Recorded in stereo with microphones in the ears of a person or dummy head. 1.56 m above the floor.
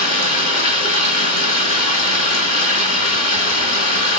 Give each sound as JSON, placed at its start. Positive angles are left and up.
{"t": 0.0, "sound": "running water", "side_deg": 50, "distance_m": 4.0}